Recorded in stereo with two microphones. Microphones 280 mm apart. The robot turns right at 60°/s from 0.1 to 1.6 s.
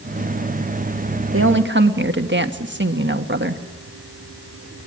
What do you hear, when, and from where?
1.3 s a woman speaking: 50° right (ahead or behind), 1.3 m; by 3.6 s 40° right (ahead or behind), 1.3 m